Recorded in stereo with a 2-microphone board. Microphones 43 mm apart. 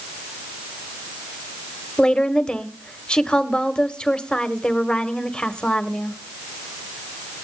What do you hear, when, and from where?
2.0 s a woman speaking: 20° left (ahead or behind), 1.4 m